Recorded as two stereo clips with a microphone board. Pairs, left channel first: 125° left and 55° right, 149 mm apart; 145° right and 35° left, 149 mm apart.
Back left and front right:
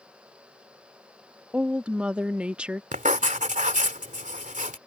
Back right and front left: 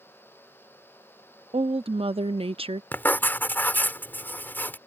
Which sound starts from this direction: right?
Writing, at 2.9 s.